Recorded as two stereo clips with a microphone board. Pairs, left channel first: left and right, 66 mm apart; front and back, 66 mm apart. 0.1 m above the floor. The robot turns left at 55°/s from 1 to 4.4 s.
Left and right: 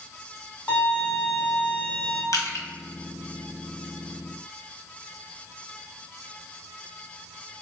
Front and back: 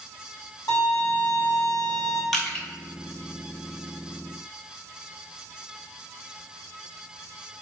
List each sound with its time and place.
0.7 s a violin: 15° left, 0.9 m; by 2.2 s 50° right, 0.9 m
2.3 s crushing: 85° left, 0.6 m; by 2.6 s 65° left, 0.6 m